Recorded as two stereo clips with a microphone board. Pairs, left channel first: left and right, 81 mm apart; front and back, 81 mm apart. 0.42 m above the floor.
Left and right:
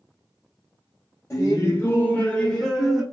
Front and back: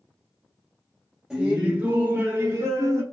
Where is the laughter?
105° left, 1.2 m; by 3.0 s 175° right, 1.1 m.